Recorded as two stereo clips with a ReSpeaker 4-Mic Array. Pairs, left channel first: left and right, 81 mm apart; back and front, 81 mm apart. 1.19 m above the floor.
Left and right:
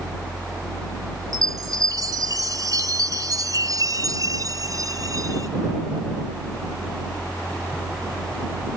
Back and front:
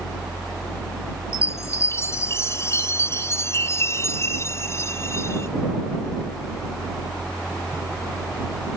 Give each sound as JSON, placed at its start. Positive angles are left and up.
{"t": 1.3, "sound": "a chime", "azimuth_deg": -125}